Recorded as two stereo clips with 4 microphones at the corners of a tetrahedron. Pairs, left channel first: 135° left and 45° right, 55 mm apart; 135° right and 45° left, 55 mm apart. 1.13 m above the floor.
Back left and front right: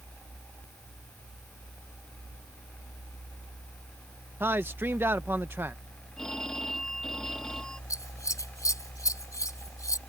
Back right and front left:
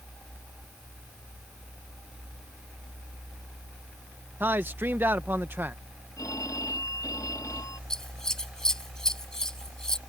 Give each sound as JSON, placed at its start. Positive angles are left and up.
{"t": 4.4, "sound": "a man speaking", "azimuth_deg": -5}
{"t": 6.2, "sound": "a phone ringing", "azimuth_deg": -145}
{"t": 7.9, "sound": "scissors", "azimuth_deg": 145}